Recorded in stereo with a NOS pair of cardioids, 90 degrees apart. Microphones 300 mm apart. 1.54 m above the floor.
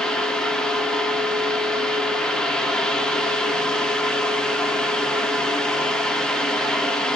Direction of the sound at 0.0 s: Straight ahead.